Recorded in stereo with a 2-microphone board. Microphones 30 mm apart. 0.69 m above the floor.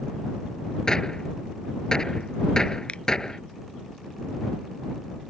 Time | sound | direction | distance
0.9 | a gunshot | 20° left (ahead or behind) | ?
2.9 | a finger snap | 40° left (ahead or behind) | ?